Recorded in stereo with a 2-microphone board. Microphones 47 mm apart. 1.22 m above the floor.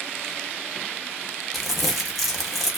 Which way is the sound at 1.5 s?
Centre (ahead or behind).